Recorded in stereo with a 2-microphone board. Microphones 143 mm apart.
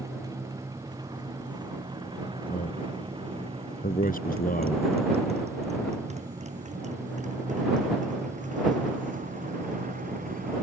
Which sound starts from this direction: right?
A motorcycle, at 0.0 s.